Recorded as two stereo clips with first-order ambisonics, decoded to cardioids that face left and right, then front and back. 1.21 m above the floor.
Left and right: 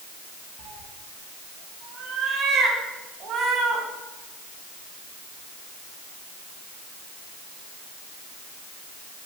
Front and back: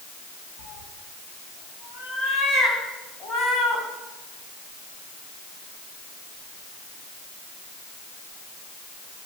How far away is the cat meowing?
About 1.9 m.